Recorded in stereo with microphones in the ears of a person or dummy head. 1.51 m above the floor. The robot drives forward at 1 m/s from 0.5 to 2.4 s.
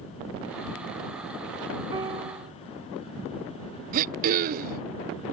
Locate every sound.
1.9 s a piano: 30° right (ahead or behind); by 2.5 s 35° right (ahead or behind)
3.9 s throat clearing: 50° right (ahead or behind)